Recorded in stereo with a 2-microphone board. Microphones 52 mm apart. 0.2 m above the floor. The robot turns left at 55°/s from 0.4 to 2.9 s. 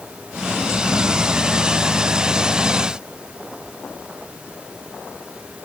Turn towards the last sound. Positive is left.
No sound to turn to.